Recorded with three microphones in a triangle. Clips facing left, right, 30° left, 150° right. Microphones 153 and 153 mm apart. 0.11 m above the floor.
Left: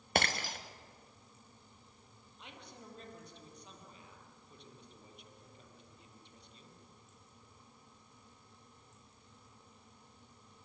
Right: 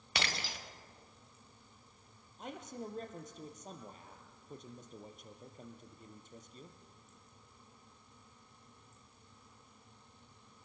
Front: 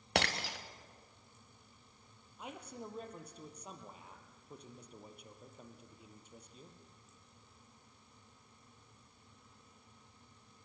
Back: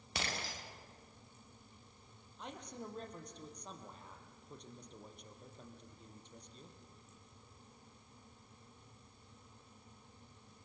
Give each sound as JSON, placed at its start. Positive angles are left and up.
{"t": 0.1, "sound": "breaking glass", "azimuth_deg": 50, "distance_m": 3.0}
{"t": 2.4, "sound": "a man speaking", "azimuth_deg": -50, "distance_m": 3.5}